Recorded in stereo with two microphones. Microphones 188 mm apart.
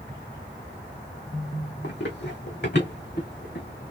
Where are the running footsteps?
70° left (ahead or behind), 1.5 m; by 3.9 s 65° left (ahead or behind), 2.5 m.